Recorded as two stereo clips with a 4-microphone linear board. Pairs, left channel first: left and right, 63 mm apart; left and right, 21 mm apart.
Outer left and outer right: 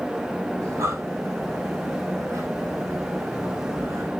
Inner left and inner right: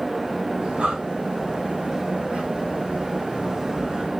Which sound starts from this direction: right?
Breathing, at 0.6 s.